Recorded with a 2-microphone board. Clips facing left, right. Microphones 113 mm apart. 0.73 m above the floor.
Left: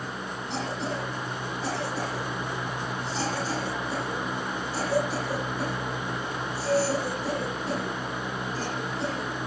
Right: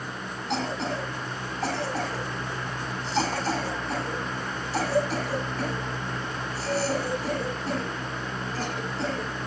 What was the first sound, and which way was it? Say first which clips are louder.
A cough: right 3 dB; 85° right.